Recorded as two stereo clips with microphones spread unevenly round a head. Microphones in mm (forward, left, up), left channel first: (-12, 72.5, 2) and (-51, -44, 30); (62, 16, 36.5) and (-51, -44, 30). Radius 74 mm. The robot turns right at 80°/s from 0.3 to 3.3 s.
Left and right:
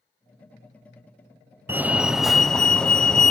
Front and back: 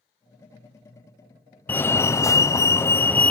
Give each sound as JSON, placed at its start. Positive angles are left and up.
{"t": 1.7, "sound": "a fire alarm", "azimuth_deg": -25}